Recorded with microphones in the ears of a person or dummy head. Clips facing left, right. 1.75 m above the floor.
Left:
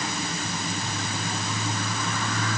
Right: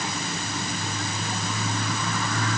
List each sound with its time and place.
Only background noise.